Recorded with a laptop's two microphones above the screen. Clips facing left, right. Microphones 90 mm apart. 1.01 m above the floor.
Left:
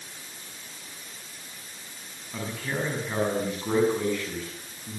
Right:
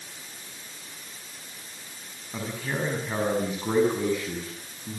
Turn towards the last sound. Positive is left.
turn(degrees=-15)  # may be behind; listen again after turning